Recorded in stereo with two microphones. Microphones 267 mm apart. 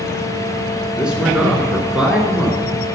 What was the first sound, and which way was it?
A man speaking, 5° right (ahead or behind).